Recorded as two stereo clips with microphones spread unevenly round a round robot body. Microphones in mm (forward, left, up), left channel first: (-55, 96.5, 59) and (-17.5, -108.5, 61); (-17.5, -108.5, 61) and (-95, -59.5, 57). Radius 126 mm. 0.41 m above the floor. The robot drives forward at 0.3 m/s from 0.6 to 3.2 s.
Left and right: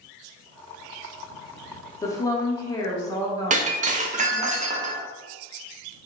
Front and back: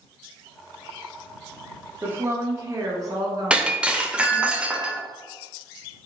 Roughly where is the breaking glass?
Behind right.